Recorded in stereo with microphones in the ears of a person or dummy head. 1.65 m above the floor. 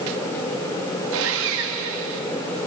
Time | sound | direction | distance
1.1 | sawing | 70° right (ahead or behind) | 2 m